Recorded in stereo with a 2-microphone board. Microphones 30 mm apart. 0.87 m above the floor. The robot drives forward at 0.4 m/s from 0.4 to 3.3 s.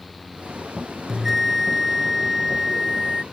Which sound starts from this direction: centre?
A bell, at 1.1 s.